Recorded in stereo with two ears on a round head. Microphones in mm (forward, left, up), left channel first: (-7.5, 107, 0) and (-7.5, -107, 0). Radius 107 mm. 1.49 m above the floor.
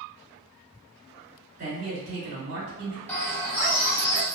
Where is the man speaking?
45° right (ahead or behind), 2.0 m.